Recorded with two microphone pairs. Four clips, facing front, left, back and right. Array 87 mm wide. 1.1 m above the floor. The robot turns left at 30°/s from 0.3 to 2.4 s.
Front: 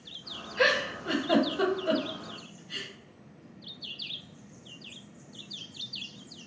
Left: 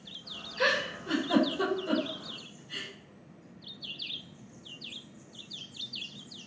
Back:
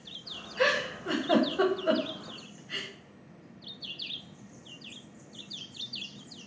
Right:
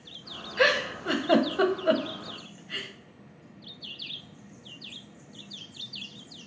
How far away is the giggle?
About 0.5 m.